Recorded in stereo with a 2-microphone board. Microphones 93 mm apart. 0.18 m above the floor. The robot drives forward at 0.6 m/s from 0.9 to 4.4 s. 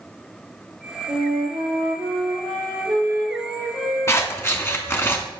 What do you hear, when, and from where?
1.1 s a flute: 75° right (ahead or behind), 1.6 m; by 5.1 s 40° right (ahead or behind), 2.5 m
4.1 s scissors: 30° left (ahead or behind), 0.8 m; by 5.2 s 25° left (ahead or behind), 0.9 m